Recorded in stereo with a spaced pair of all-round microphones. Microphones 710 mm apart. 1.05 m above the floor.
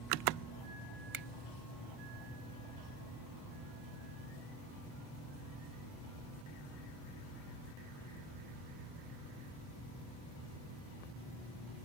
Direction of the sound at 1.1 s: 45° right (ahead or behind).